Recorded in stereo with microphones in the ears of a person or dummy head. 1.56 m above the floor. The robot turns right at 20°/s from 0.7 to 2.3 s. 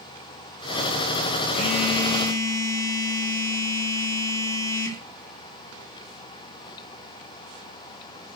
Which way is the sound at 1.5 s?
30° left (ahead or behind).